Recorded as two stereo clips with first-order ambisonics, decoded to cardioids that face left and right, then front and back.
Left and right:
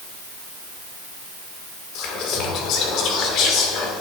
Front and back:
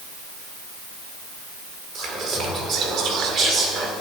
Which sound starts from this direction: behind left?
Whispering, at 1.9 s.